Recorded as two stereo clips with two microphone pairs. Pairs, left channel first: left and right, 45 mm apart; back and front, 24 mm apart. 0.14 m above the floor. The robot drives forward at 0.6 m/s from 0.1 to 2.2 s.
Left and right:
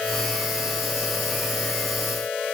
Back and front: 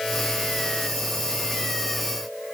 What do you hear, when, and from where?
Only background noise.